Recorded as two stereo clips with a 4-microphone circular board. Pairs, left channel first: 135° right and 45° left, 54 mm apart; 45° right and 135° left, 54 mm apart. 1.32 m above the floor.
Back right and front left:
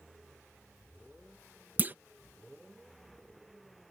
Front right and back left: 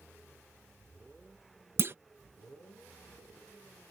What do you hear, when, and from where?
1.8 s a clunk: 95° left